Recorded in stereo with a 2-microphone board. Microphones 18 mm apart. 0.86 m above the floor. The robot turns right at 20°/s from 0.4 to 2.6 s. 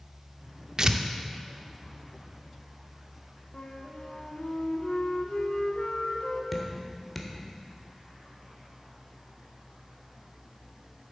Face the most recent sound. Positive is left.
turn(degrees=10)  # may be behind; listen again after turning